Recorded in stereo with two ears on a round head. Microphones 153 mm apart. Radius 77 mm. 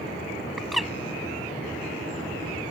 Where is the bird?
Centre (ahead or behind).